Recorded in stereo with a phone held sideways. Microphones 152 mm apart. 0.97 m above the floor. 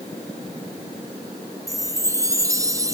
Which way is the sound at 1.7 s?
20° right (ahead or behind).